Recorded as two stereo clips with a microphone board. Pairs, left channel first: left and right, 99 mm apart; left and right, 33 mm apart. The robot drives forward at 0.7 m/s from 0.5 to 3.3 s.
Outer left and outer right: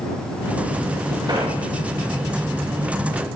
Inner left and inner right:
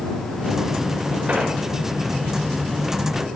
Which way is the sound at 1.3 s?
45° right (ahead or behind).